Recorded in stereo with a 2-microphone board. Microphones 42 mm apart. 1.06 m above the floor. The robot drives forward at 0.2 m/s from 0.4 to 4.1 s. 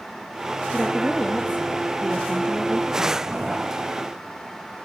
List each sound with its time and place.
0.7 s a woman speaking: 35° left (ahead or behind), 1.0 m; by 3.4 s 25° left (ahead or behind), 1.5 m